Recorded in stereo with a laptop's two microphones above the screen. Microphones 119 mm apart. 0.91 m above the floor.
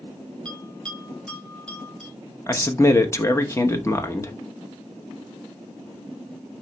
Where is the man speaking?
25° left (ahead or behind), 0.8 m.